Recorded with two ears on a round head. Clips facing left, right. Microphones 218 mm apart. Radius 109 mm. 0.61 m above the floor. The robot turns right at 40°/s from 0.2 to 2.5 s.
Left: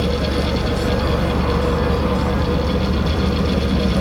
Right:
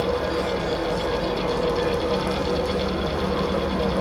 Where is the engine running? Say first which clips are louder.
Left 3 dB; 40° left, 1.4 m; by 4.0 s 135° left, 1.4 m.